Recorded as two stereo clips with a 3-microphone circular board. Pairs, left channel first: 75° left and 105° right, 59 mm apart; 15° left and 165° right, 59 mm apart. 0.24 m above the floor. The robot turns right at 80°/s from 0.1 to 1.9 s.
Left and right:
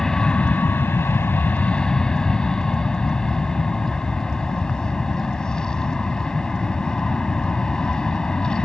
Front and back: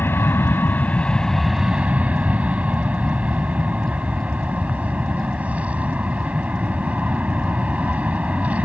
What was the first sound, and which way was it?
An aircraft, straight ahead.